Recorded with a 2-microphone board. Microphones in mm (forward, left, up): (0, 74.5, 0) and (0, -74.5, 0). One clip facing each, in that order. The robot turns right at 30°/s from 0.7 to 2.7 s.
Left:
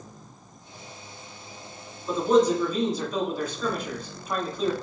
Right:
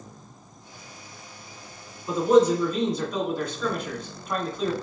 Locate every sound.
2.1 s a man speaking: 10° right (ahead or behind), 1.9 m; by 4.7 s 5° left (ahead or behind), 1.9 m